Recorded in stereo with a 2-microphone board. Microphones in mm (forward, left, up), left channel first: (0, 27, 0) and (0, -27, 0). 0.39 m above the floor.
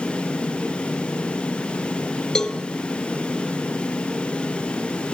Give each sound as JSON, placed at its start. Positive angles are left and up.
{"t": 2.4, "sound": "a cowbell", "side_deg": 10, "distance_m": 0.6}